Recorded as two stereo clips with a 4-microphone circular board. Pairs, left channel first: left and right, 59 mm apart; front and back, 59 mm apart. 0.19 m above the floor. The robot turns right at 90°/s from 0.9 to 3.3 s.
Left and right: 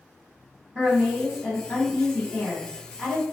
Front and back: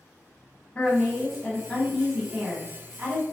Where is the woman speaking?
30° right, 1.0 m; by 3.2 s straight behind, 1.0 m.